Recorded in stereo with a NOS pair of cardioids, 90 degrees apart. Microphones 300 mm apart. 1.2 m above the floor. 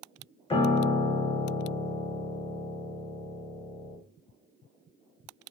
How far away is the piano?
About 0.6 m.